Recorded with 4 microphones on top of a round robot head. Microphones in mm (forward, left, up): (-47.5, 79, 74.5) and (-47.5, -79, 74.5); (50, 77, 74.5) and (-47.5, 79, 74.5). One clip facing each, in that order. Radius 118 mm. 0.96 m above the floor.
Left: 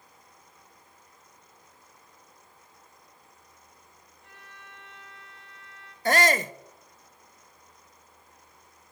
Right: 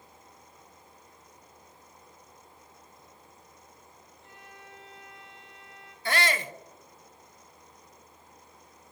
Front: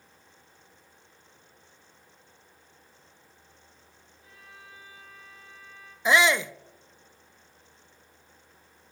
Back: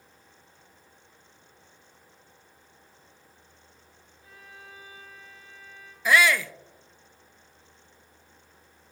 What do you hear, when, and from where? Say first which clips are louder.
4.2 s a violin: right 2 dB, back 3 dB; 155° right, 2.5 m
6.0 s a shout: left 6 dB, even; 65° left, 0.6 m